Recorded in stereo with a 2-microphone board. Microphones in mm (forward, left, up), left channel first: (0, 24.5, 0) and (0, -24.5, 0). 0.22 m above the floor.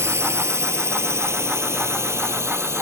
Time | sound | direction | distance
0.0 | a drone | 70° right (ahead or behind) | ?